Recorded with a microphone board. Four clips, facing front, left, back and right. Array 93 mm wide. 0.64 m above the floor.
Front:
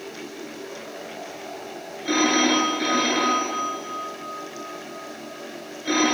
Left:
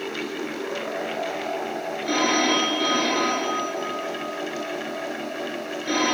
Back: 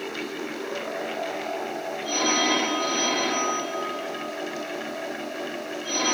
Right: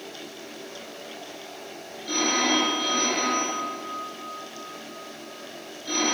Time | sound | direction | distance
2.0 | a phone ringing | 25° left | 6.5 m